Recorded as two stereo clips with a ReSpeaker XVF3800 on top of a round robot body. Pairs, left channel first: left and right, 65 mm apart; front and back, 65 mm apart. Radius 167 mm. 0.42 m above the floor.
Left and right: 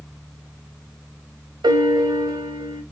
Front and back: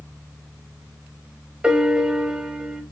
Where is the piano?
100° right, 0.8 m.